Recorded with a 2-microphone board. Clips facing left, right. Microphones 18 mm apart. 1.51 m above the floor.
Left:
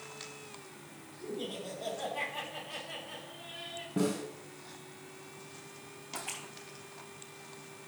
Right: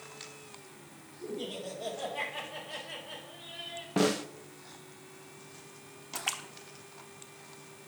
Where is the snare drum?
65° right (ahead or behind), 0.7 m.